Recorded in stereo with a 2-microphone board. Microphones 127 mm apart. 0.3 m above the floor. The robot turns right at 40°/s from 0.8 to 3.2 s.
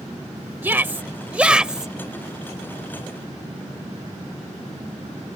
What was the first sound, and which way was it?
A shout, 15° right (ahead or behind).